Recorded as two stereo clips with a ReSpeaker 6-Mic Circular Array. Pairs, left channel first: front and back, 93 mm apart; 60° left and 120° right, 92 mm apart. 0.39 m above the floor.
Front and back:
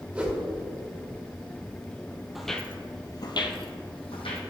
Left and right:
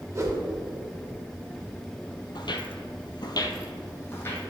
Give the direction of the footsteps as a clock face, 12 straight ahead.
9 o'clock.